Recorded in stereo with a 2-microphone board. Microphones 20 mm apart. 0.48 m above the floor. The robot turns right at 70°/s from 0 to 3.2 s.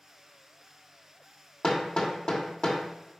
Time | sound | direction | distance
1.6 | hammering | 30° left (ahead or behind) | 1.3 m